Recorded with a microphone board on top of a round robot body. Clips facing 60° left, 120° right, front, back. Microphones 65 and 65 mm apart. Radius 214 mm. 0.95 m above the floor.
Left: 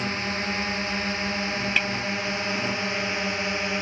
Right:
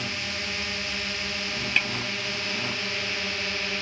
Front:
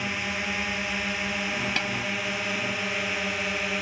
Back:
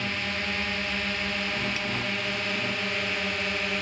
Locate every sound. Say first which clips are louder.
0.0 s a drone: left 5 dB, front 1 dB; 75° left
1.8 s a snare drum: even, front 3 dB; 30° right